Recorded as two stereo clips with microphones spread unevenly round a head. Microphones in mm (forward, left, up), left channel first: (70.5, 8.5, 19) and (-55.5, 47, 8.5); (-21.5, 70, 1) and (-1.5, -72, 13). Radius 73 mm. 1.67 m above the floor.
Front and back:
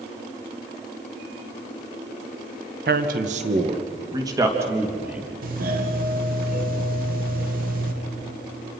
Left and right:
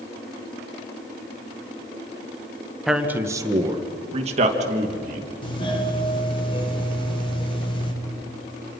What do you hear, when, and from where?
2.9 s a man speaking: 170° right, 1.6 m; by 5.2 s 115° right, 3.5 m
5.4 s a doorbell: 155° left, 2.5 m